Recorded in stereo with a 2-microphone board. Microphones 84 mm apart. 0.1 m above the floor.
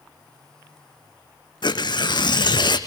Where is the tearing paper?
65° left (ahead or behind), 1.2 m.